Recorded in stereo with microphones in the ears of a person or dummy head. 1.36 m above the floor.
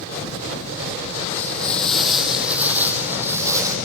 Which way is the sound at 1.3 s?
10° left (ahead or behind).